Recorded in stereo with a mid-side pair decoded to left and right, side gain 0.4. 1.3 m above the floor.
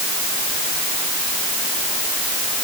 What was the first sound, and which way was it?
Only background noise.